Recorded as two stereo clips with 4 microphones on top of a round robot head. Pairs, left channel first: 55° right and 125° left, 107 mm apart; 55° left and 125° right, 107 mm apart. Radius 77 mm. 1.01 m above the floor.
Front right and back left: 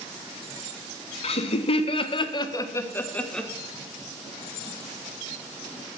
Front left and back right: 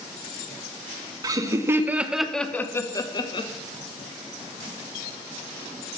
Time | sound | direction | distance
1.2 | laughter | 70° right | 1.7 m